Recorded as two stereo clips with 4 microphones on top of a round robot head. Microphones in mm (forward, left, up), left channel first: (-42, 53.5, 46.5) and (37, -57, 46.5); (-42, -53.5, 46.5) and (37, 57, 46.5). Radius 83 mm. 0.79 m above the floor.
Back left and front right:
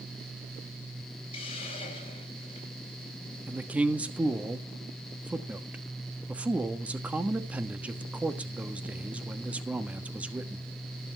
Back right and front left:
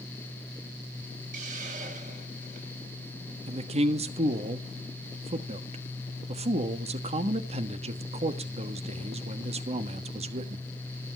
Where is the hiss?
80° left, 5.5 m.